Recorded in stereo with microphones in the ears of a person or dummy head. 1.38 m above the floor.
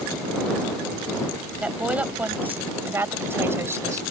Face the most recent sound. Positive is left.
turn(degrees=-15)  # may be behind; listen again after turning